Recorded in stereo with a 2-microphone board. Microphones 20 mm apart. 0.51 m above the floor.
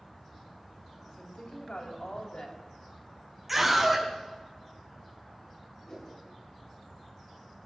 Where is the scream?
10° right (ahead or behind), 4.5 m.